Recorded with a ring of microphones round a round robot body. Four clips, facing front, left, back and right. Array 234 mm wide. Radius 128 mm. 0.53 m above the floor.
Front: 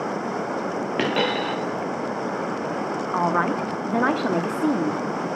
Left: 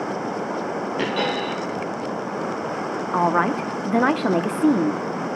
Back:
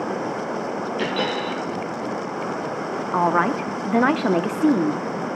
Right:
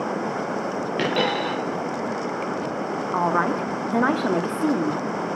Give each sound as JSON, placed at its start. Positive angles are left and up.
{"t": 1.0, "sound": "a dropped coin", "azimuth_deg": -25, "distance_m": 5.5}
{"t": 3.1, "sound": "a woman speaking", "azimuth_deg": 145, "distance_m": 0.8}